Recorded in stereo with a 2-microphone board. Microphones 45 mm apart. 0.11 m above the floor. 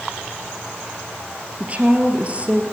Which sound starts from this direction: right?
A woman speaking, at 1.6 s.